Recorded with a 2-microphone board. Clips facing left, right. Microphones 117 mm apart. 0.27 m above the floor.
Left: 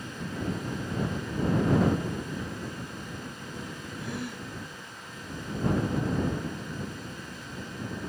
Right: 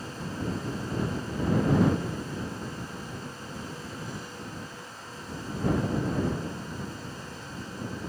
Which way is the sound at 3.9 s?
65° left (ahead or behind).